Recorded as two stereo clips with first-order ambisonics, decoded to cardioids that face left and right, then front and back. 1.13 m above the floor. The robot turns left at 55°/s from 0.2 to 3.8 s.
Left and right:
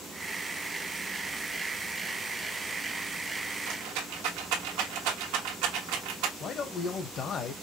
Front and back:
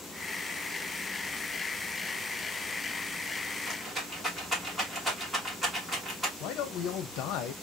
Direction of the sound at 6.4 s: 30° left.